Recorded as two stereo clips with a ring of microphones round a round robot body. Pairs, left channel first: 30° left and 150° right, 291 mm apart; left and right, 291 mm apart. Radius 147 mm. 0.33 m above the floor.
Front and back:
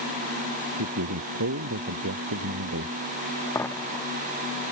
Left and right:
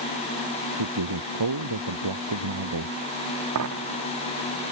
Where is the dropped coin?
50° right.